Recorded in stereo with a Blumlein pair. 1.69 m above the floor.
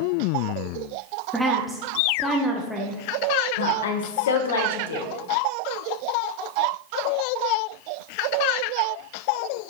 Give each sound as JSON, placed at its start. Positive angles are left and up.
{"t": 1.3, "sound": "a woman speaking", "azimuth_deg": -5, "distance_m": 0.9}
{"t": 3.6, "sound": "a woman speaking", "azimuth_deg": 60, "distance_m": 1.0}